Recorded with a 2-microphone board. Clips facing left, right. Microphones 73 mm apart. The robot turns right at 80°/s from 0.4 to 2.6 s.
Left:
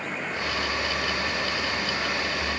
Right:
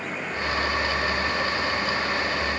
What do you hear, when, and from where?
Only background noise.